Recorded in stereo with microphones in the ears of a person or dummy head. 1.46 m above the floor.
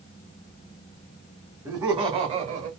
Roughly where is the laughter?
Centre.